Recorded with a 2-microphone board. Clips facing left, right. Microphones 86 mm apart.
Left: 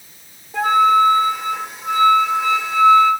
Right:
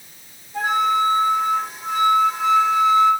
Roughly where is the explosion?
I don't hear an explosion.